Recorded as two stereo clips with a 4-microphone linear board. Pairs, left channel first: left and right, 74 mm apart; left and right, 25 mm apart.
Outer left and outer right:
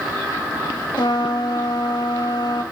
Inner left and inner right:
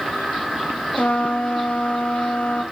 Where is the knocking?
No knocking in this recording.